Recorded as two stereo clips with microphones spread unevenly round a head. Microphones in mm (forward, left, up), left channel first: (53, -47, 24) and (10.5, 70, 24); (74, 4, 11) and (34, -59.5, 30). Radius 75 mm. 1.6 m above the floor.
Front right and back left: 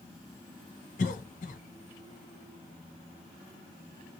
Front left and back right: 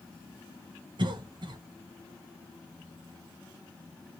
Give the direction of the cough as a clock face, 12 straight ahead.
3 o'clock.